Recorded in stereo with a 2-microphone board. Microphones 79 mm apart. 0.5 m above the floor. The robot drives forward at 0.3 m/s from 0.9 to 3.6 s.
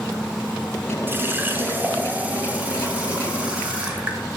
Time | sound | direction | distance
1.1 | a running tap | 25° right (ahead or behind) | 0.7 m